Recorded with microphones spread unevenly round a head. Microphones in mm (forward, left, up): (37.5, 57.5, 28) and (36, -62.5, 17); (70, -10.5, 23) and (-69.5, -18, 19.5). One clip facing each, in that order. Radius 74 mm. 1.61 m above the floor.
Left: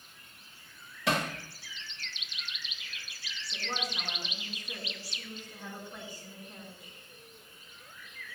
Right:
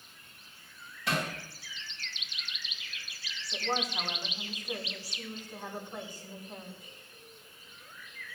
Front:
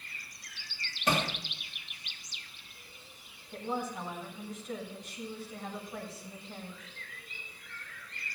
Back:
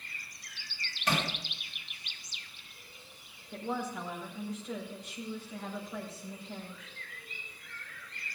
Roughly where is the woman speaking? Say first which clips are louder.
Right 5 dB, even; behind.